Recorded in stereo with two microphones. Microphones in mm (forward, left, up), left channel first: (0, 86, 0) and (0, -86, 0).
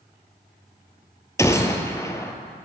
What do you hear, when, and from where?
1.4 s a gunshot: 15° left (ahead or behind), 1.0 m